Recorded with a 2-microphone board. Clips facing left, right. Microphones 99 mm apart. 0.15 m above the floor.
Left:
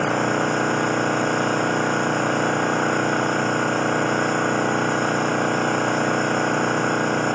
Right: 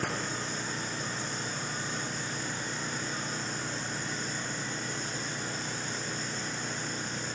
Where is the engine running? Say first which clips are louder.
Left 14 dB; 70° left (ahead or behind).